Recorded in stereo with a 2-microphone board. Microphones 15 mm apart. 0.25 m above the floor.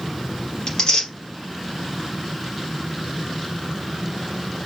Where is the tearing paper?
45° left (ahead or behind), 3 m.